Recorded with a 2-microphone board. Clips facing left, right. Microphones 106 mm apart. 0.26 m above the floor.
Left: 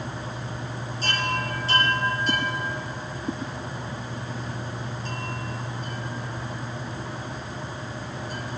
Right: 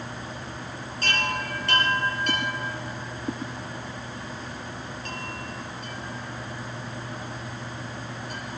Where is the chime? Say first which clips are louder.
Left 1 dB; 60° right (ahead or behind), 7 m.